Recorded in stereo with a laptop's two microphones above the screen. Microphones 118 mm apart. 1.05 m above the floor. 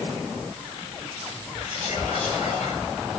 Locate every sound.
1.6 s whispering: 70° left (ahead or behind), 1.3 m